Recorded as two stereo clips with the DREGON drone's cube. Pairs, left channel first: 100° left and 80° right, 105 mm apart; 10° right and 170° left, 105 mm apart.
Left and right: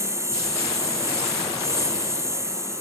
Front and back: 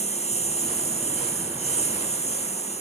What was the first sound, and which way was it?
A lawn mower, 15° right.